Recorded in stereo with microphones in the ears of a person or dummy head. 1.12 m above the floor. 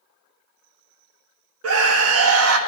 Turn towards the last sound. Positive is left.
turn(degrees=-70)  # may be behind; listen again after turning